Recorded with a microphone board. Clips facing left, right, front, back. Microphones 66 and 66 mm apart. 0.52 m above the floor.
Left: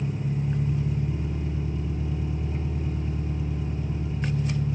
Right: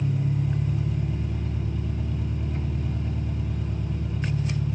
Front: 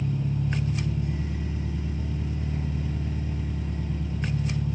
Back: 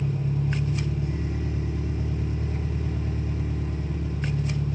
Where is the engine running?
115° right, 5.5 m.